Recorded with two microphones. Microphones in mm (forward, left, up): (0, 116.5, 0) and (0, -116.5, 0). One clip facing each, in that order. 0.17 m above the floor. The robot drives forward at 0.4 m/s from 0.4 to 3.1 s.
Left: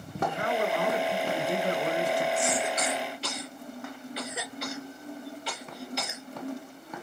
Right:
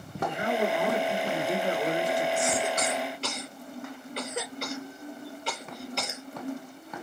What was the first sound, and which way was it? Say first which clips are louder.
A man speaking: right 1 dB; 20° right (ahead or behind).